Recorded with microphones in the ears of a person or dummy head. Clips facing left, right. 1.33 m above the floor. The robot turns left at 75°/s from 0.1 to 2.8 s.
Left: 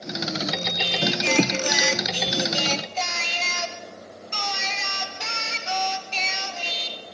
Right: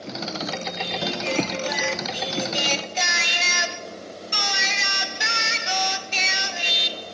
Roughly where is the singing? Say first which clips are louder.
Left 3 dB; behind left.